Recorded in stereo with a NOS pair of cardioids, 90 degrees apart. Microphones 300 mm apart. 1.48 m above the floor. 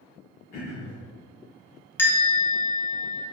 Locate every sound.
0.5 s throat clearing: 65° left, 1.1 m
2.0 s a bell: 10° left, 0.8 m